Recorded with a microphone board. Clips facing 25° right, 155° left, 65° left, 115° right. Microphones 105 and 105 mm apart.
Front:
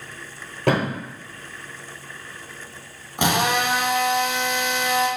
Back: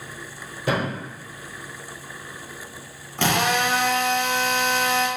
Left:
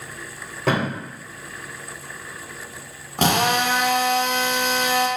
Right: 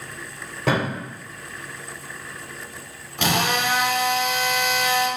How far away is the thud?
About 1.3 m.